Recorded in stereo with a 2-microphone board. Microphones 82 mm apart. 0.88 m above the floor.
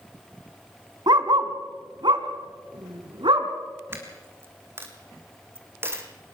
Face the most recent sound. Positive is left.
turn(degrees=-30)  # may be behind; listen again after turning